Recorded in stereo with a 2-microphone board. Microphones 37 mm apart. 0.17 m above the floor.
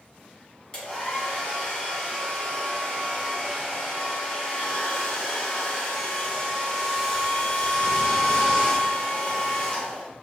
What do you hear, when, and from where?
0.7 s a hair dryer: 25° left (ahead or behind), 1.7 m